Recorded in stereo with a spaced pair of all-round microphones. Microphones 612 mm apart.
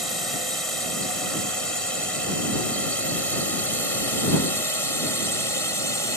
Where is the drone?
60° right (ahead or behind); by 6.2 s 55° right (ahead or behind).